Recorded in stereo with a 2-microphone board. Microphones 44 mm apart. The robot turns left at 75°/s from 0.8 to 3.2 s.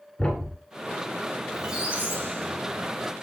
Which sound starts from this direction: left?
A thud, at 0.2 s.